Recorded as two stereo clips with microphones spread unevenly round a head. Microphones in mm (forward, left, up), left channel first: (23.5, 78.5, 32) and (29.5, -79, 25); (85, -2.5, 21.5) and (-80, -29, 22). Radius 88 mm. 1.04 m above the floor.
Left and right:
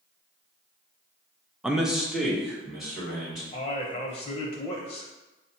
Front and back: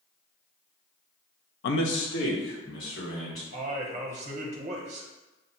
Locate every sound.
1.6 s a man speaking: 5° right, 0.5 m; by 3.4 s straight ahead, 3 m
3.5 s a man speaking: 145° left, 0.6 m